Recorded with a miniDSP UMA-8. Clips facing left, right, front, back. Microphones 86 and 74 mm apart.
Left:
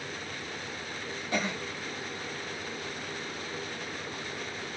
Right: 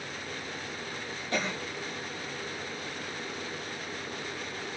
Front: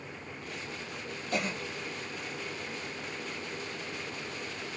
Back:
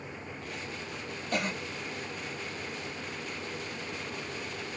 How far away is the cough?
About 1.5 m.